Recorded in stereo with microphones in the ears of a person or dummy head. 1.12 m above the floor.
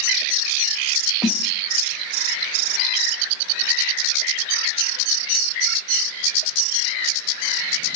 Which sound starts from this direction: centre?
A snare drum, at 1.2 s.